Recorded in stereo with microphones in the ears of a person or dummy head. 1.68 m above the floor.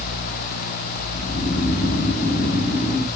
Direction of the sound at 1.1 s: 45° left (ahead or behind).